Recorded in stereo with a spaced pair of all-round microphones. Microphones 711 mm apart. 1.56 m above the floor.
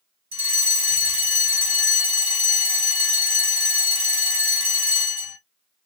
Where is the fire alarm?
70° right (ahead or behind), 2.5 m.